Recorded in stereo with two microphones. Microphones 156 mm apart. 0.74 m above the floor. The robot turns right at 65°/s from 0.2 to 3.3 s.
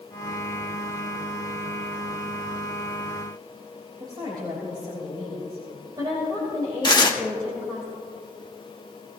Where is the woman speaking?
30° right (ahead or behind), 3 m.